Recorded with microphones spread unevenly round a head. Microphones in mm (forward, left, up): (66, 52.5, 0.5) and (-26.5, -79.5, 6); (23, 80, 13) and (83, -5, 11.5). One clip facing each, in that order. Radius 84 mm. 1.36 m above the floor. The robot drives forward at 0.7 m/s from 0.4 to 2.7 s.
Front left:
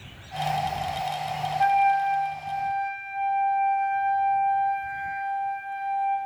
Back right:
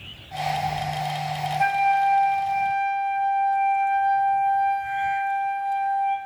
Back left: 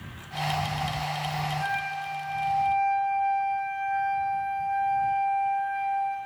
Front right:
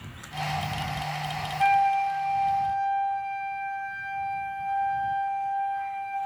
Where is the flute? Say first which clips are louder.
Even, front right 10 dB; 75° right, 0.7 m; by 6.2 s 135° right, 0.9 m.